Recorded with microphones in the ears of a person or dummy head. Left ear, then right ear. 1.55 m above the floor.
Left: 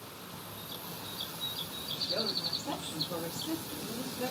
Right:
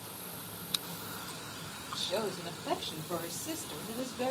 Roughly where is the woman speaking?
Right.